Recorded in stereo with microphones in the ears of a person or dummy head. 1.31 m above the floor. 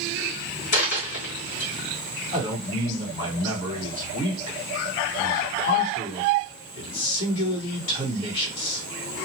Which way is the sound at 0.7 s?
40° left (ahead or behind).